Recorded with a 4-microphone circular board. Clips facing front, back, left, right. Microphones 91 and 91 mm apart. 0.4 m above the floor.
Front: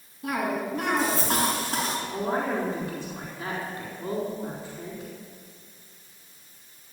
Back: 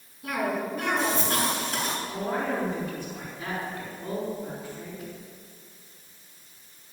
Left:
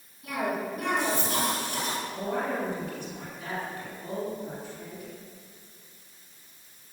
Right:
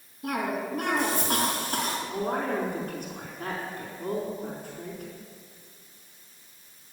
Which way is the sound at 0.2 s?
50° right.